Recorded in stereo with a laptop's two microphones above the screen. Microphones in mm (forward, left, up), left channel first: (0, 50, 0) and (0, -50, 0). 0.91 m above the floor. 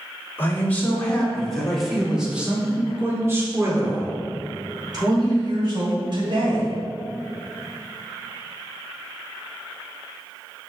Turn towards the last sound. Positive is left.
turn(degrees=-55)  # may be behind; listen again after turning